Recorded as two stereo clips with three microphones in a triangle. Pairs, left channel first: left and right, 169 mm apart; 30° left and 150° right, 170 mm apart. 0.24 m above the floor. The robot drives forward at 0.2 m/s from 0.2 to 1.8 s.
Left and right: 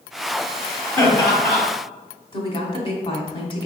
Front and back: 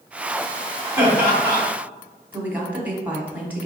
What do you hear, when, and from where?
1.0 s laughter: 145° left, 1.6 m; by 1.6 s 150° left, 1.6 m
2.3 s a woman speaking: 135° left, 1.3 m